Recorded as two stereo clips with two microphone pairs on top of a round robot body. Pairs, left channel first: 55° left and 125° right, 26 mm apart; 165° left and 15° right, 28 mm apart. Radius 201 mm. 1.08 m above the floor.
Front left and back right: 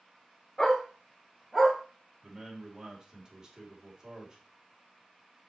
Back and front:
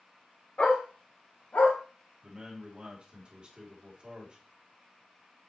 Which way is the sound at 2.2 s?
70° right.